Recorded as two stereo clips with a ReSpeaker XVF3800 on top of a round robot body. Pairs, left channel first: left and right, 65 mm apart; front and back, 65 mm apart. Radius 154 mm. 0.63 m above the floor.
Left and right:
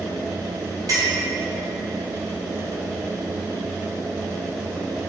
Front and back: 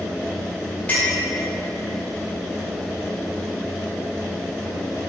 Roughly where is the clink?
Ahead right.